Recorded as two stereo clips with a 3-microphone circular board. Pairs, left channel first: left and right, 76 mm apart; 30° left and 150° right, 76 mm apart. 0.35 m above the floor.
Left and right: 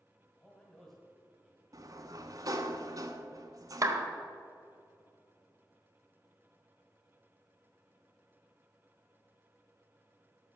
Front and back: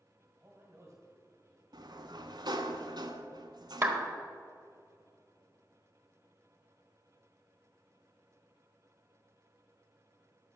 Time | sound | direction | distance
0.4 | a man speaking | 155° left | 2 m
1.7 | a sliding door | 130° right | 0.8 m
3.8 | a clap | 100° right | 1.1 m